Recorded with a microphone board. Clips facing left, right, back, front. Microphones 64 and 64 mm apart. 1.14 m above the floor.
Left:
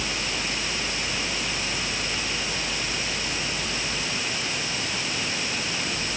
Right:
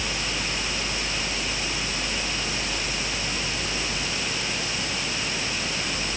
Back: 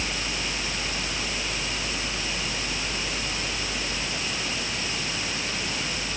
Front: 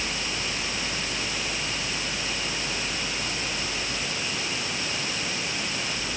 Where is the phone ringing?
I don't hear a phone ringing.